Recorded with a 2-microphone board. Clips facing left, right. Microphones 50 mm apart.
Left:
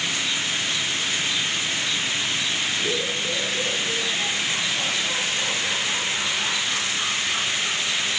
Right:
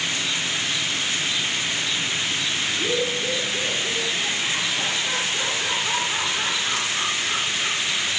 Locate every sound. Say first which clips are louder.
2.7 s laughter: right 2 dB; 55° right (ahead or behind), 9.5 m